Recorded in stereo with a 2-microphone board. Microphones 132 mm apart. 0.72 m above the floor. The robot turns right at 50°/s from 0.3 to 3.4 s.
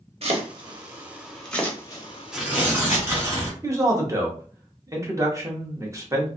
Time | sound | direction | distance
0.2 | chopping | 50° right (ahead or behind) | 0.6 m
2.3 | tearing paper | 5° right (ahead or behind) | 1.1 m
3.6 | a man speaking | 25° right (ahead or behind) | 0.7 m